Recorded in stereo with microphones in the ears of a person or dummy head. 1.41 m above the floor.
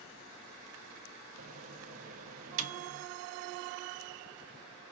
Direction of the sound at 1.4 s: 40° right (ahead or behind).